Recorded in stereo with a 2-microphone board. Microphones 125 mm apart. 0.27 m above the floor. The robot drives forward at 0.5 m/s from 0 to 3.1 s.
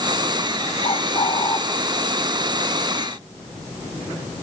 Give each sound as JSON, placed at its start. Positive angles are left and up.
{"t": 0.8, "sound": "a bird", "side_deg": 45, "distance_m": 0.9}